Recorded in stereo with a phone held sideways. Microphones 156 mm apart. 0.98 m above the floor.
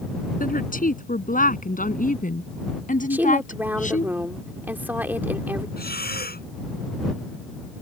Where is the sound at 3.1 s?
10° right (ahead or behind).